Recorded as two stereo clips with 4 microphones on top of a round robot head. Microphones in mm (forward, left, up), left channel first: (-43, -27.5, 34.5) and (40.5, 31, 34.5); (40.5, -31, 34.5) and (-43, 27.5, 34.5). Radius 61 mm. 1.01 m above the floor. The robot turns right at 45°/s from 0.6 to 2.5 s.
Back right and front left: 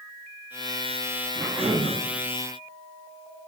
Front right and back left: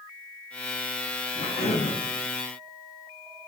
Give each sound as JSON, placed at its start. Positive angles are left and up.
{"t": 1.4, "sound": "a cough", "azimuth_deg": -50, "distance_m": 2.0}